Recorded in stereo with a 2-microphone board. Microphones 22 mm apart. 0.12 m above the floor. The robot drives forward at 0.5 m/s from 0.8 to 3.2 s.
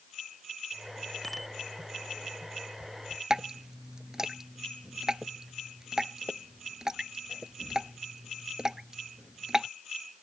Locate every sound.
1.2 s a bicycle bell: centre (ahead or behind)
3.3 s dripping: 25° right (ahead or behind)